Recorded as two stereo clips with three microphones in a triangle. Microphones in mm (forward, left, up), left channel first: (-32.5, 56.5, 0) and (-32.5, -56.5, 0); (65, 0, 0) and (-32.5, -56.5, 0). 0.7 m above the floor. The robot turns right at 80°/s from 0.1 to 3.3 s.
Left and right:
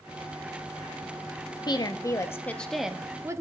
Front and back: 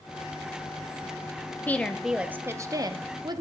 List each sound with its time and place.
1.7 s a woman speaking: 90° left, 0.5 m; by 3.4 s 135° right, 0.5 m